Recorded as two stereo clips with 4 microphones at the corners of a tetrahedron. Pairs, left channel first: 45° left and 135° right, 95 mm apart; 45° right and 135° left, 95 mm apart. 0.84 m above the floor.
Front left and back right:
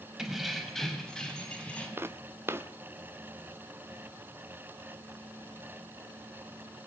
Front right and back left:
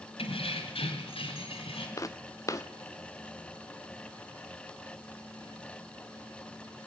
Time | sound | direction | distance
0.2 | keys jangling | 50° right | 4 m
2.0 | footsteps | 85° right | 1.1 m